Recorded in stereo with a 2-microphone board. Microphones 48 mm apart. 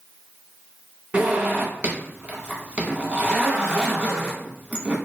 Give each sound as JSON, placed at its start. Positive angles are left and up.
{"t": 1.1, "sound": "a zipper", "side_deg": -30, "distance_m": 1.0}